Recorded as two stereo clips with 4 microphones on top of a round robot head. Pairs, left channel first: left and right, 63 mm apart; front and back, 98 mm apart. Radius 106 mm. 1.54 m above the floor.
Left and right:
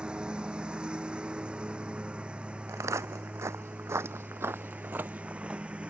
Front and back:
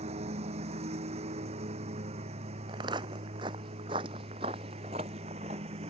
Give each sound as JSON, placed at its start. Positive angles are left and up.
{"t": 0.0, "sound": "a lawn mower", "azimuth_deg": -165}
{"t": 2.7, "sound": "footsteps", "azimuth_deg": -130}